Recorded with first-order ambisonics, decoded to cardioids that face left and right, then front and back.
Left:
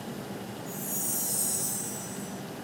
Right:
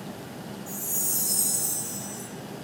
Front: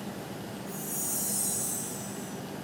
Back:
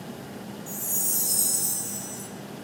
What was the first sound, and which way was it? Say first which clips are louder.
A chime: right 5 dB, back 6 dB; 155° right.